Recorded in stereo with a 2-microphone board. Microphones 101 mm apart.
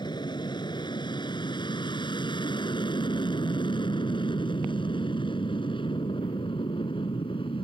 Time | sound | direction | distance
0.0 | an aircraft | 45° left (ahead or behind) | ?